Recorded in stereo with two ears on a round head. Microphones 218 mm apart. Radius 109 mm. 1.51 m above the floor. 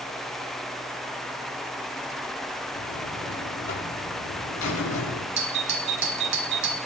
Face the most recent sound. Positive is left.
turn(degrees=-50)  # may be behind; listen again after turning